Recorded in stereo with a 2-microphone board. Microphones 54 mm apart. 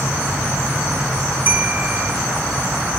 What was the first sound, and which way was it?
A bell, 35° right (ahead or behind).